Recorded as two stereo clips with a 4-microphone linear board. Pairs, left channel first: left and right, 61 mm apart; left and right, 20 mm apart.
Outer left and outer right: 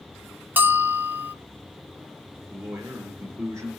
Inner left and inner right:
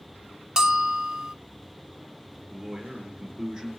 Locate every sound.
0.6 s a bell: 30° right (ahead or behind), 0.6 m
2.5 s a man speaking: 55° right (ahead or behind), 2.5 m